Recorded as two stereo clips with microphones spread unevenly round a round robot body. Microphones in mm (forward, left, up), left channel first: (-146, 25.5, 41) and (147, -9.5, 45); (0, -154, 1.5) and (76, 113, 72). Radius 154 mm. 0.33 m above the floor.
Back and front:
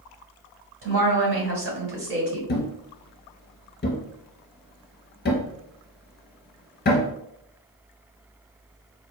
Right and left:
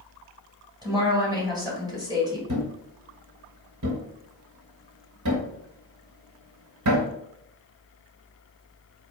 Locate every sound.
0.8 s a woman speaking: 10° right, 2.0 m
2.5 s a thud: 115° left, 1.1 m